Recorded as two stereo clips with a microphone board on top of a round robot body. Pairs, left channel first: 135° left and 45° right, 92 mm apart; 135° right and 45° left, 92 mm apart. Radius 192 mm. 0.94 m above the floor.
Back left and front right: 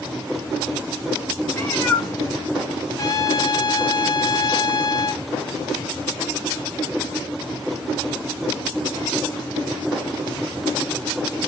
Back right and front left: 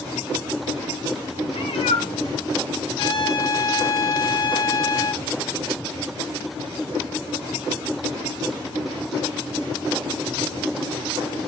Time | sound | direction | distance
1.5 | a cat meowing | 160° right | 0.8 m
3.0 | a trumpet | 170° right | 1.0 m